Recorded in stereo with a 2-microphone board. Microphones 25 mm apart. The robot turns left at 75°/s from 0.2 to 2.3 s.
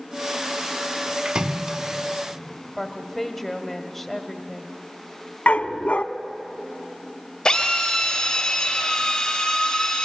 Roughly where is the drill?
Left.